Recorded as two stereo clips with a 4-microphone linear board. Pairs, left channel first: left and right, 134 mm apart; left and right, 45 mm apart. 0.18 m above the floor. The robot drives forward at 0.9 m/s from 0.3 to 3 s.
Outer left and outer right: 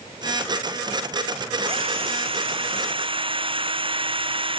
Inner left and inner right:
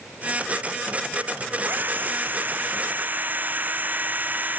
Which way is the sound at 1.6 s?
45° right (ahead or behind).